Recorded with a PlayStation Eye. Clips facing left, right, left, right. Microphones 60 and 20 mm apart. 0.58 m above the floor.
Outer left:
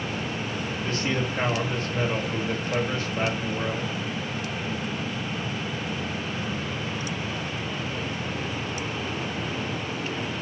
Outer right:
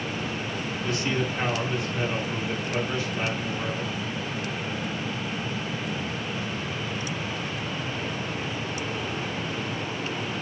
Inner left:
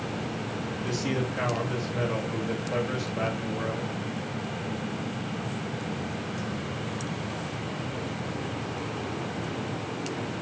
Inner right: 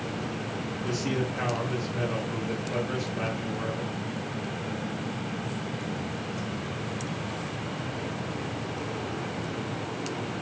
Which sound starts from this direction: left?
A man speaking, at 0.8 s.